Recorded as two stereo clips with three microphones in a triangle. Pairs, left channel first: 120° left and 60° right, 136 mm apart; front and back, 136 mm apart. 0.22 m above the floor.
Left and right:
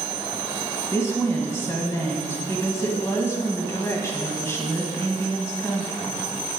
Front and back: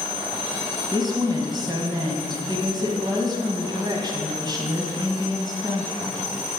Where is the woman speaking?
170° left, 1.4 m.